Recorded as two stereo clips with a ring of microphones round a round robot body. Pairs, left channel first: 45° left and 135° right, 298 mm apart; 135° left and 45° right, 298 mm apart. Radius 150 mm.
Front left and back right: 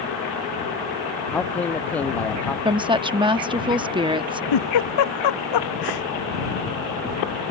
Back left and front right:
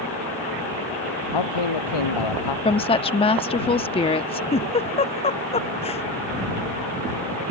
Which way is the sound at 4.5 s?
65° left.